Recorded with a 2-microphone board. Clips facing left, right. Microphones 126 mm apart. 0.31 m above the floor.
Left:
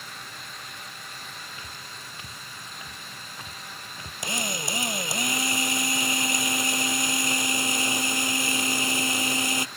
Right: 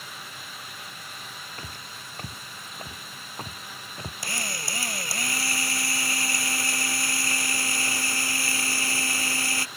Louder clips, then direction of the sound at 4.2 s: Left 6 dB; 20° left (ahead or behind).